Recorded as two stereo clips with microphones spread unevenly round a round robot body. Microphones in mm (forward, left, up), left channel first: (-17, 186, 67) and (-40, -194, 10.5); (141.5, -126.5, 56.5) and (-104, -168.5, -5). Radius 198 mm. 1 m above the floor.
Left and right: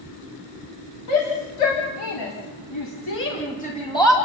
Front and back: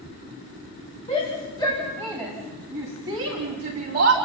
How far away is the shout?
About 3.5 m.